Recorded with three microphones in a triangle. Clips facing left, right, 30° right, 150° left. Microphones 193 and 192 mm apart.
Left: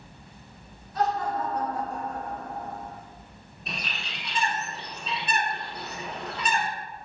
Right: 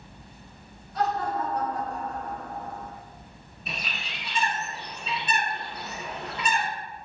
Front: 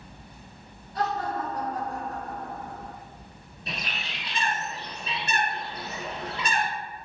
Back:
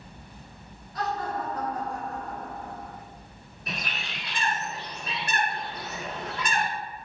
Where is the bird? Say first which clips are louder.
Even, even; 5° right, 1.5 m.